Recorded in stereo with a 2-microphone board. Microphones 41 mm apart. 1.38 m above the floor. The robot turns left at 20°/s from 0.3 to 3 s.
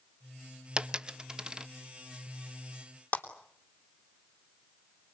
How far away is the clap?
About 3 m.